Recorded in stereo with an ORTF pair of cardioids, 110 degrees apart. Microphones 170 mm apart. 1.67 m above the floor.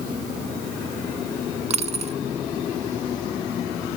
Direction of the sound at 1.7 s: 40° right.